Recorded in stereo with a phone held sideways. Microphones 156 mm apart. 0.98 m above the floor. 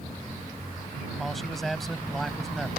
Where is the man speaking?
Centre (ahead or behind).